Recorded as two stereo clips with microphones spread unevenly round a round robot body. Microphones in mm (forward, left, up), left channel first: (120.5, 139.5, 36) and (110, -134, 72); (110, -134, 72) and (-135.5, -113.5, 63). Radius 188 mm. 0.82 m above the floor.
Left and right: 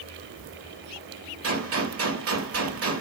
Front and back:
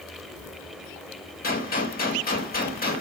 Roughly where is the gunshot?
Ahead right.